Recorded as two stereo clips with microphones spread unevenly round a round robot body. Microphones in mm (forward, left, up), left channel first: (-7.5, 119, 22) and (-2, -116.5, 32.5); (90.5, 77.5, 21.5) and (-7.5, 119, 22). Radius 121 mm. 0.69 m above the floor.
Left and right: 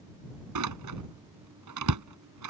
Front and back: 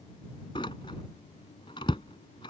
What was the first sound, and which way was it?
A door slam, 95° right.